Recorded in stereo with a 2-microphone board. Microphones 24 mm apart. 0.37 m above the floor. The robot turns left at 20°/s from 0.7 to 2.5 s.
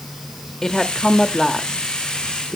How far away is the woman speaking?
About 0.9 m.